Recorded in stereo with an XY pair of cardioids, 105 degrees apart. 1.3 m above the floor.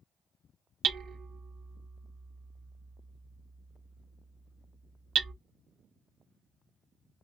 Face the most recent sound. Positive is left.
turn(degrees=-65)